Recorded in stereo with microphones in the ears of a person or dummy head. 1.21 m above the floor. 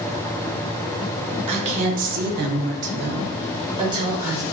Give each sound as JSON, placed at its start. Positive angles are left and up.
{"t": 1.5, "sound": "a woman speaking", "side_deg": -35, "distance_m": 1.0}